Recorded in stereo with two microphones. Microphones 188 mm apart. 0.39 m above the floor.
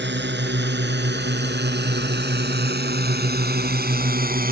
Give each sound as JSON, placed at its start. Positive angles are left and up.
{"t": 0.0, "sound": "a drone", "side_deg": -75}